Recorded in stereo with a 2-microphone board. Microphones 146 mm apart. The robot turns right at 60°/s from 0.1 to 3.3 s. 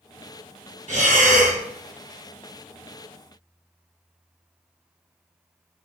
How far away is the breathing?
About 0.8 m.